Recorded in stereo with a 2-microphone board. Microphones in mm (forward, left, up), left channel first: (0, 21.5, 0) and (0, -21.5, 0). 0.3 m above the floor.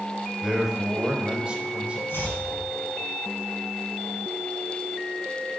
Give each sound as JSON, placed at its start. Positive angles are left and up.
{"t": 0.4, "sound": "a man speaking", "side_deg": -10, "distance_m": 1.4}
{"t": 2.1, "sound": "chopping", "side_deg": 65, "distance_m": 3.5}